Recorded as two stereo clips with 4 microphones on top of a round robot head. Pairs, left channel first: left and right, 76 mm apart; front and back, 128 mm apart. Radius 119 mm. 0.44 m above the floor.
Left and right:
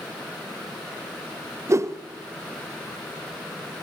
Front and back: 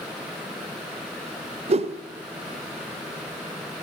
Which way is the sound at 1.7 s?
145° right.